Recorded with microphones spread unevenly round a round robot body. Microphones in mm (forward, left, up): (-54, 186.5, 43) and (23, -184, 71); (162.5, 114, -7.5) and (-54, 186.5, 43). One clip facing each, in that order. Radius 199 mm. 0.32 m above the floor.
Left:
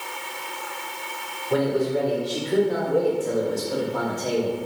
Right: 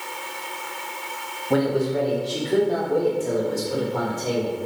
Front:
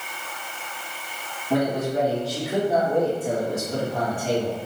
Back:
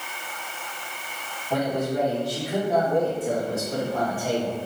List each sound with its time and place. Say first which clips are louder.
1.5 s a man speaking: right 1 dB, front 2 dB; 90° right, 1.9 m; by 4.5 s 155° right, 1.2 m